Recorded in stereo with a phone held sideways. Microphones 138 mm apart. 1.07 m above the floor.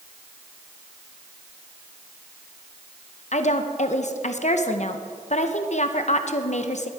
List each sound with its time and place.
3.3 s a woman speaking: 55° left (ahead or behind), 0.7 m